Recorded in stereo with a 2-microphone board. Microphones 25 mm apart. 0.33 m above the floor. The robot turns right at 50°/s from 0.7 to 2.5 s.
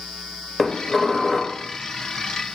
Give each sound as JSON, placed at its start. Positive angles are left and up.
{"t": 0.6, "sound": "dishes clattering", "side_deg": 10, "distance_m": 0.6}